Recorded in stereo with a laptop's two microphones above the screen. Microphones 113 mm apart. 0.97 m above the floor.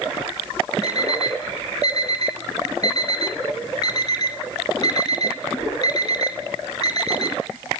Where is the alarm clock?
40° left (ahead or behind), 2.5 m.